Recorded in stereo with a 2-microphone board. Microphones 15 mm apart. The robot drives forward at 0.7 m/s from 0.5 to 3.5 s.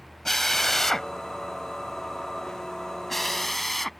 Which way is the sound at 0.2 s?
25° left (ahead or behind).